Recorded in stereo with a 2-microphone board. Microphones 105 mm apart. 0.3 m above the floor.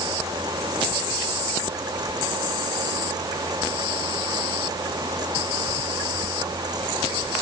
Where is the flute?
No flute in this recording.